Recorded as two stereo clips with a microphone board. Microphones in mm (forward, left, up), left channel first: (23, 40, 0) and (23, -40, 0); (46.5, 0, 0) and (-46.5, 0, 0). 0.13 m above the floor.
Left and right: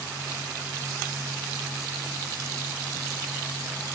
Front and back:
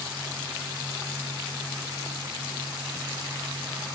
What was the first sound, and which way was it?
Only background noise.